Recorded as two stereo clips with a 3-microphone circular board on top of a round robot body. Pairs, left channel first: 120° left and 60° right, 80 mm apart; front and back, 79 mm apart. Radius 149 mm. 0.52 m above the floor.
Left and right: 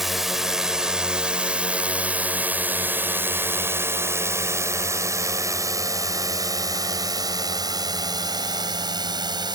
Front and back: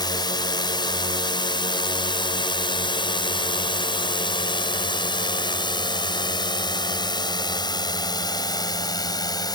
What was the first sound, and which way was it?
A drone, 25° left.